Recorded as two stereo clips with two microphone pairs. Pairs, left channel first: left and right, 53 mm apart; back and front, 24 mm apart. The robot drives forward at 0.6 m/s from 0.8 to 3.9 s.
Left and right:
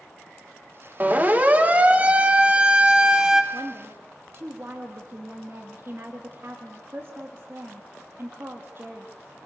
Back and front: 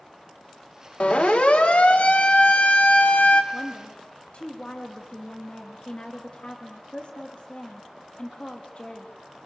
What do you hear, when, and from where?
1.0 s a siren: 145° right, 2 m; by 3.4 s 170° right, 1.4 m
3.5 s a woman speaking: 130° right, 2.5 m; by 9.1 s 135° right, 2.5 m